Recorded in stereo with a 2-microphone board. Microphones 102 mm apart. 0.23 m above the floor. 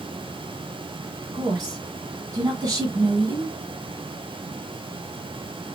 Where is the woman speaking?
40° right (ahead or behind), 1.9 m.